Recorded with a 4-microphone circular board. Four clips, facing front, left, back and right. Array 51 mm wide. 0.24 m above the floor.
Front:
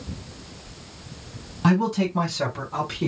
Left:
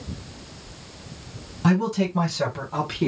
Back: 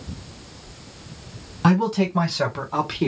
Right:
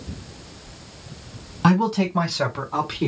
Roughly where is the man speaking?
Behind right.